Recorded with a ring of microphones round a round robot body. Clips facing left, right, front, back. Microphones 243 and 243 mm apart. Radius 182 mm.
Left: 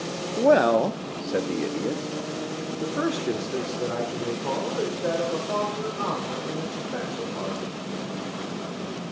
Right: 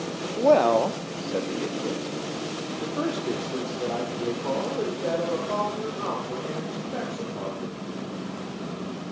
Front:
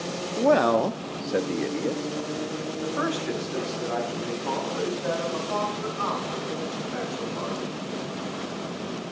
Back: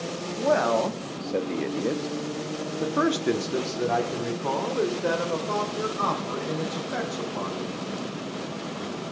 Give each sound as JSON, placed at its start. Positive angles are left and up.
{"t": 0.4, "sound": "a man speaking", "azimuth_deg": 15, "distance_m": 1.0}